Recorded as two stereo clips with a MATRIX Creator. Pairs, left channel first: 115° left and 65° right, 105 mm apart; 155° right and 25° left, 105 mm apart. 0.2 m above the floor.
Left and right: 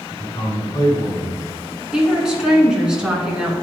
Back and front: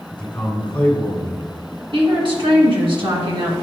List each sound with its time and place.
0.1 s a man speaking: 130° left, 1.9 m
1.9 s a woman speaking: 15° left, 2 m